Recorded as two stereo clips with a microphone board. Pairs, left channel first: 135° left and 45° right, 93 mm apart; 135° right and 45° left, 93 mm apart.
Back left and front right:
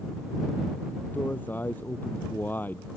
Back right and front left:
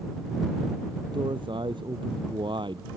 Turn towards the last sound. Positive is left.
turn(degrees=65)